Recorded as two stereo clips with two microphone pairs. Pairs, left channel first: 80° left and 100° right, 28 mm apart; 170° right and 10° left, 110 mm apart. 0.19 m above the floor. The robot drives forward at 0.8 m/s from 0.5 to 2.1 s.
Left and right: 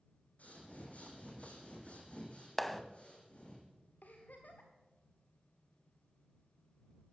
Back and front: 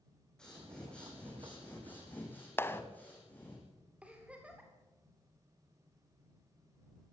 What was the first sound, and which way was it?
Breathing, 110° left.